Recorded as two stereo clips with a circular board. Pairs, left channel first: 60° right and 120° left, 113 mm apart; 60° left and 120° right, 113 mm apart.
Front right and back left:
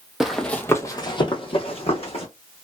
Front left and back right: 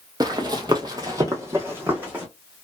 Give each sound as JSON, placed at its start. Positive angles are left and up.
{"t": 0.2, "sound": "running footsteps", "azimuth_deg": -155, "distance_m": 0.7}